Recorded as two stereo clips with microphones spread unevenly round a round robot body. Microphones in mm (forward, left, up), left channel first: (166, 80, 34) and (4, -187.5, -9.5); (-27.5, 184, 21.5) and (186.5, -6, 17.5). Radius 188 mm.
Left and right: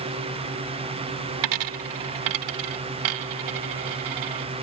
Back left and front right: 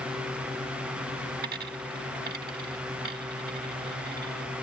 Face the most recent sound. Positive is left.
turn(degrees=-105)